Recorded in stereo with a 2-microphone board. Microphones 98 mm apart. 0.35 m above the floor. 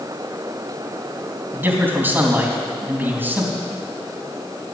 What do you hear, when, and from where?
1.5 s a man speaking: 25° right (ahead or behind), 3.5 m